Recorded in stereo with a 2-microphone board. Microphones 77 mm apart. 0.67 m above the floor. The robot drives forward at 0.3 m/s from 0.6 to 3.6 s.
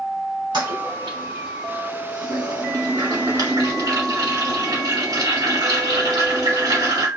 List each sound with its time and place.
0.5 s a toilet flushing: 70° right (ahead or behind), 1.2 m; by 7.1 s 55° right (ahead or behind), 1.4 m